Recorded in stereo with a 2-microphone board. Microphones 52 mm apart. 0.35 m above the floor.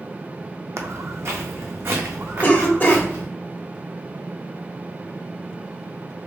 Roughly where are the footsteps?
Right.